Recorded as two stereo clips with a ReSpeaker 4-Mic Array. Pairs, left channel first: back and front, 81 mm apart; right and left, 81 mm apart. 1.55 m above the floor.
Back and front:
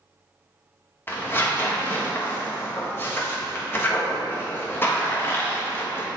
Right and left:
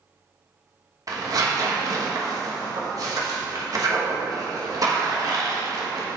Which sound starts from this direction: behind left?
Tearing paper, at 1.1 s.